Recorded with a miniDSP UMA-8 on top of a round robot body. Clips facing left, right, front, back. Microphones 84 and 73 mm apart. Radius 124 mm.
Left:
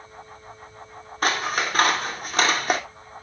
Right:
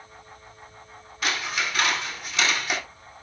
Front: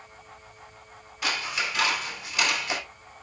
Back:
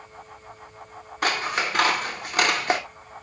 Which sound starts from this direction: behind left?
Scissors, at 1.2 s.